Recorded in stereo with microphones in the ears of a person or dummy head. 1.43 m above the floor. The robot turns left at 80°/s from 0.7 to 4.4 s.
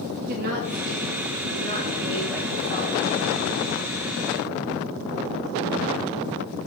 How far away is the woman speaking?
About 3 m.